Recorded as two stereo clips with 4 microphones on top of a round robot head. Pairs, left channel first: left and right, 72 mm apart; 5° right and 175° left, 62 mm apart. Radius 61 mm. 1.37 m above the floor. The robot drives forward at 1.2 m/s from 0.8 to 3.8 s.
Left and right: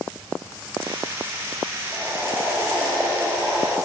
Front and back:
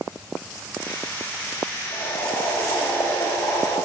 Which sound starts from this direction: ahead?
Boiling, at 1.9 s.